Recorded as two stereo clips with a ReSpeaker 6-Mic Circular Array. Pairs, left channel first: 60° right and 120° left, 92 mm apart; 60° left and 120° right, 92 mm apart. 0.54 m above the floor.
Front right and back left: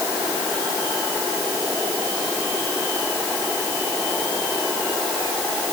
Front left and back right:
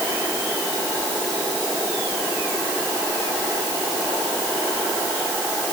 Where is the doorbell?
I don't hear a doorbell.